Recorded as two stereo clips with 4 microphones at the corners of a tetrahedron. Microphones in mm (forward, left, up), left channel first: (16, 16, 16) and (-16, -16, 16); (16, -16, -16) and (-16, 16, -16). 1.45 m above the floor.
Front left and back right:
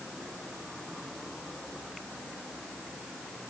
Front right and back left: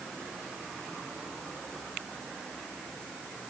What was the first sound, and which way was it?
Only background noise.